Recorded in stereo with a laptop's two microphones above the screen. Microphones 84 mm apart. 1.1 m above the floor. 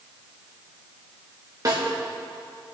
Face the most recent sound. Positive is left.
turn(degrees=-45)  # may be behind; listen again after turning